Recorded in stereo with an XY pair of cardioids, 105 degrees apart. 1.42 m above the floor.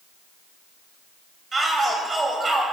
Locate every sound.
1.5 s a shout: 30° right, 9.5 m